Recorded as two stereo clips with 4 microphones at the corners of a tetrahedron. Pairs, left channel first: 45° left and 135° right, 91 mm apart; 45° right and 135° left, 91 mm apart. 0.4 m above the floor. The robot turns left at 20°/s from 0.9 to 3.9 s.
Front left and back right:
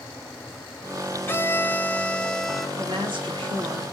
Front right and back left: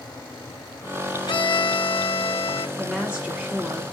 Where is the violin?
20° right, 0.6 m; by 2.7 s 45° right, 0.6 m.